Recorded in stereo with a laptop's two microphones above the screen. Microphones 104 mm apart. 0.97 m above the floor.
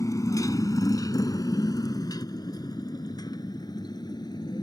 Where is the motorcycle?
35° left (ahead or behind); by 4.6 s 45° left (ahead or behind).